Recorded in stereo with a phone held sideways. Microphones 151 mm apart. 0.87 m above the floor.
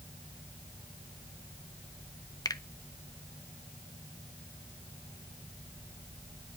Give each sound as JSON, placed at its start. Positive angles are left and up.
{"t": 2.5, "sound": "a finger snap", "side_deg": 25, "distance_m": 0.7}